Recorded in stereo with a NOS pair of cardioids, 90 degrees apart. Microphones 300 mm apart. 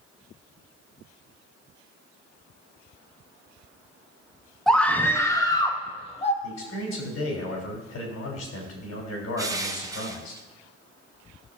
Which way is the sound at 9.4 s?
10° right.